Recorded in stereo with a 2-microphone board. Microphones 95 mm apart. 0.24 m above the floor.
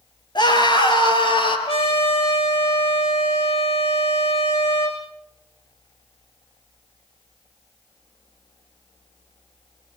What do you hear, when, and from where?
0.3 s a scream: 50° left (ahead or behind), 4.5 m; by 1.6 s 60° left (ahead or behind), 6 m
1.7 s a trumpet: 75° left (ahead or behind), 5.5 m